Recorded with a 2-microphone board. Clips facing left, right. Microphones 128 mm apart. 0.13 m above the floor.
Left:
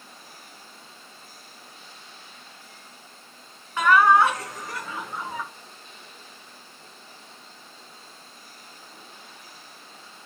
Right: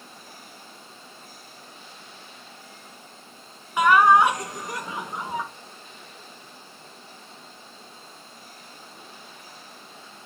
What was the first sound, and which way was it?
Laughter, 15° right (ahead or behind).